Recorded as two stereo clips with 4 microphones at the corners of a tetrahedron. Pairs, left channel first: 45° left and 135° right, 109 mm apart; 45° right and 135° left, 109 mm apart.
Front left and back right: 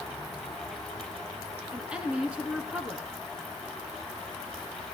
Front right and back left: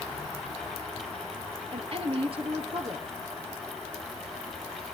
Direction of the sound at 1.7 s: 145° left.